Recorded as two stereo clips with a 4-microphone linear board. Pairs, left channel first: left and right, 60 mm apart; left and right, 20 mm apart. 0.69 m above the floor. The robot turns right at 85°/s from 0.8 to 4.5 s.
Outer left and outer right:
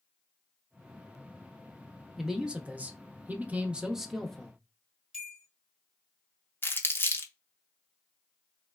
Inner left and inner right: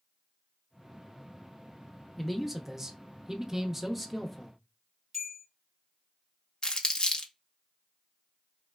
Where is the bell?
10° right (ahead or behind), 1.6 m.